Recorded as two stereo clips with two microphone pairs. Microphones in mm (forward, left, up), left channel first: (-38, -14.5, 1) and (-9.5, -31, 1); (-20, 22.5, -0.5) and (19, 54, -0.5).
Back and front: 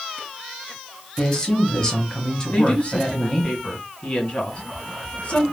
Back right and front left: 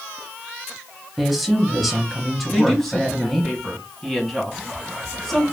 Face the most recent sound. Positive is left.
turn(degrees=135)